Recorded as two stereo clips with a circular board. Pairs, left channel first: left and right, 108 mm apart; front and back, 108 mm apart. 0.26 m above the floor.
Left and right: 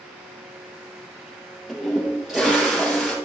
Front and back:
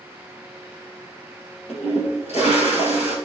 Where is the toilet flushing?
5° right, 2.5 m.